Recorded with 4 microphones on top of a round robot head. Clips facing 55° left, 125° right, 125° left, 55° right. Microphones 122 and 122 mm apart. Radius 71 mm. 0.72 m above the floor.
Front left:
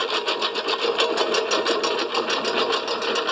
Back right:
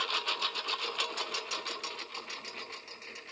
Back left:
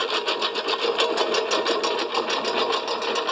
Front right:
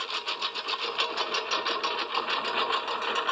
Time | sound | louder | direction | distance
0.0 | a lawn mower | front left 12 dB, back left 11 dB | 90° left | ?